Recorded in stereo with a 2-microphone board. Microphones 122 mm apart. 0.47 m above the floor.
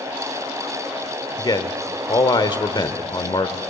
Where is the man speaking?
40° left (ahead or behind), 1.2 m.